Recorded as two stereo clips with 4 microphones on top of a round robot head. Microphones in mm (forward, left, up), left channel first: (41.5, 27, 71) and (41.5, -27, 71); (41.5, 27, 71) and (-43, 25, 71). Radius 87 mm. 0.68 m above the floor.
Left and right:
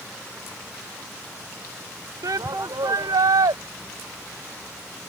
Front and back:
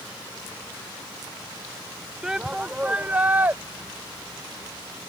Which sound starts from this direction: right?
A shout, at 2.2 s.